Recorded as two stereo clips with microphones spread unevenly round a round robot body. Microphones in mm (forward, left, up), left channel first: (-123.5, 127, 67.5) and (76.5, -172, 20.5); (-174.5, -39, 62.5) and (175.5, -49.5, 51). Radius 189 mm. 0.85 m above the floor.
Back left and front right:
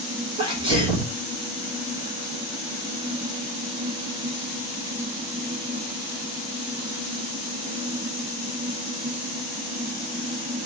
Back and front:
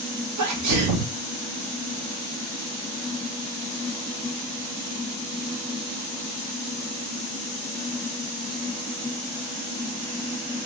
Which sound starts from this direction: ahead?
A sneeze, at 0.4 s.